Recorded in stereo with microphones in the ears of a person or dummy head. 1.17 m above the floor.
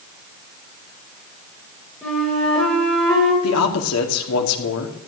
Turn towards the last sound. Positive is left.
turn(degrees=85)